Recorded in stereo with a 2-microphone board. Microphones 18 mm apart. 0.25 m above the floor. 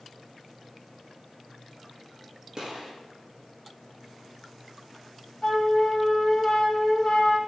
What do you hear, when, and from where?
2.6 s a gunshot: 40° right (ahead or behind), 8 m
5.4 s a flute: 30° left (ahead or behind), 2 m